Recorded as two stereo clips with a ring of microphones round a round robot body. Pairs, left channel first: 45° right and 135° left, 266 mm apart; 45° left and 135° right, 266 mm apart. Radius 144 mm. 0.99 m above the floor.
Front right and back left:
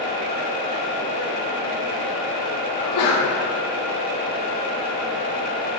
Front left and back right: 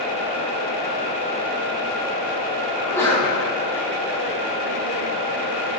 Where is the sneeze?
35° right, 3 m.